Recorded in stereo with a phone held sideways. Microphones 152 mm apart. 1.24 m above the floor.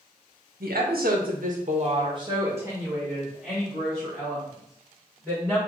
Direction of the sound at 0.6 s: 85° right.